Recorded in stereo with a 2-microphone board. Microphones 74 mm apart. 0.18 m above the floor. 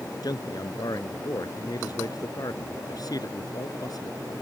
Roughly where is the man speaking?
Left.